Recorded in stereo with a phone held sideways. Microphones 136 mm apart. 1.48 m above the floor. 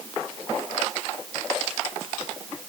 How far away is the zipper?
I don't hear a zipper.